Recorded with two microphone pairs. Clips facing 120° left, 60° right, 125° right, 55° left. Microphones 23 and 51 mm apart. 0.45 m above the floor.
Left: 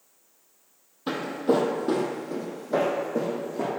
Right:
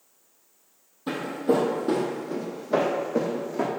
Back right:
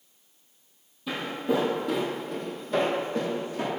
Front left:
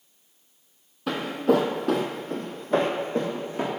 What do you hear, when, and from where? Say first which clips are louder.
1.1 s footsteps: even, front left 5 dB; 60° left, 0.9 m; by 3.7 s 5° right, 1.5 m